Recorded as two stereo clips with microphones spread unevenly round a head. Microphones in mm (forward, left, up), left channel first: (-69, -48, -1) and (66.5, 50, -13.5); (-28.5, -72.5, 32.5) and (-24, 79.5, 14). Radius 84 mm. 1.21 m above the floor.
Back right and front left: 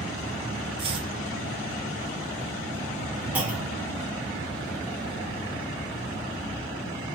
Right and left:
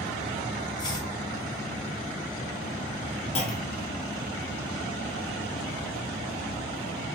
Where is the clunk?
40° right, 0.9 m.